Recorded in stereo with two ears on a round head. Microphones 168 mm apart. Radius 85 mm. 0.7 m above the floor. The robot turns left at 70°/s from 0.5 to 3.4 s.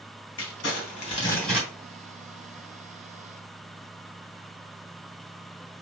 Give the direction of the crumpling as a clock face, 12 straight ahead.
10 o'clock.